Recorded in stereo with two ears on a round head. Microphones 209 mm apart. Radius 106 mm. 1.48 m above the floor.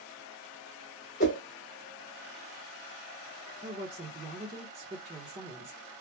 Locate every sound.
1.2 s a whoosh: 35° left (ahead or behind), 1.3 m
3.6 s a woman speaking: 20° right (ahead or behind), 1.6 m